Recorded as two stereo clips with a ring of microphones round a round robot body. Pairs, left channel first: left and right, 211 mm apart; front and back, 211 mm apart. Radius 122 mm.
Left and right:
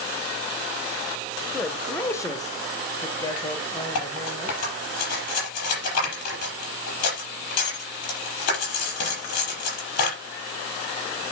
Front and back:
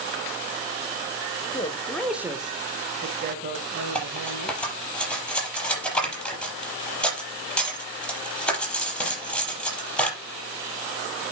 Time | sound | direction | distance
1.5 | a man speaking | 5° left | 1.4 m
4.0 | cutlery clinking | 85° left | 6 m